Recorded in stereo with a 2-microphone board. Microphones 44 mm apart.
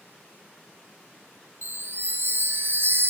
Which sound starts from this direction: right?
A chime, at 1.6 s.